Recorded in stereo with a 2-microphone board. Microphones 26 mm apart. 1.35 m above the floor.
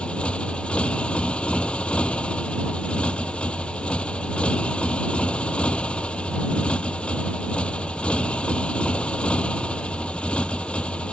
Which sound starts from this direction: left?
A motorcycle, at 0.0 s.